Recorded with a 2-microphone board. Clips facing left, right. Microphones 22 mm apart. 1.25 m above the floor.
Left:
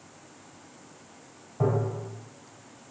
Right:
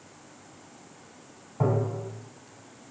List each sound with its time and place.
1.6 s tapping: 5° left (ahead or behind), 1.1 m